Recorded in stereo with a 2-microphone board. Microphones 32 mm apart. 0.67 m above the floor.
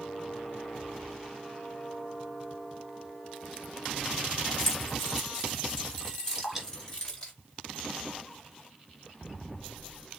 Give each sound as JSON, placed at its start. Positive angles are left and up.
{"t": 4.6, "sound": "keys jangling", "side_deg": 5, "distance_m": 4.0}
{"t": 6.3, "sound": "dripping", "side_deg": -5, "distance_m": 3.0}